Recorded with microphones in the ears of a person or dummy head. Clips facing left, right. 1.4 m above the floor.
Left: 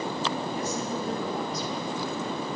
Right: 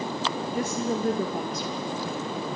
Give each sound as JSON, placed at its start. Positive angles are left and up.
{"t": 0.6, "sound": "a woman speaking", "side_deg": -45, "distance_m": 2.0}